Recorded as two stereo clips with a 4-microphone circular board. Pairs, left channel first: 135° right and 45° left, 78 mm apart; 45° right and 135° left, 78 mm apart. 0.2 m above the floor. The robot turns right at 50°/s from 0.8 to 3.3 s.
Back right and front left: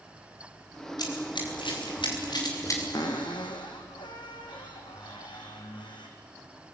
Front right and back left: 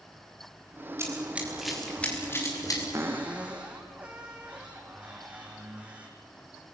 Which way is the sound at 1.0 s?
170° right.